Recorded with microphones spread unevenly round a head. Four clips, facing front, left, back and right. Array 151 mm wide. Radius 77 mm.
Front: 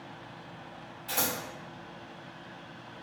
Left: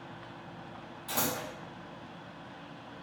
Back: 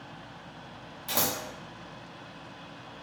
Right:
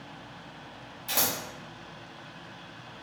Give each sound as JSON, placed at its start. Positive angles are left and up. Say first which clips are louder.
{"t": 1.1, "sound": "scissors", "louder": "right 1 dB, back 2 dB", "azimuth_deg": 180, "distance_m": 0.9}